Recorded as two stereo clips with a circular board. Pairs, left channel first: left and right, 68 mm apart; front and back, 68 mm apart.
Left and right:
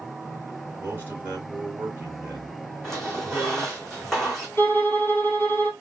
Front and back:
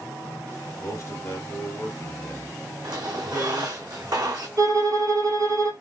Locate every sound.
0.8 s a man speaking: 45° right, 2 m
2.8 s a squeak: 170° left, 3 m
4.6 s a violin: 150° left, 2.5 m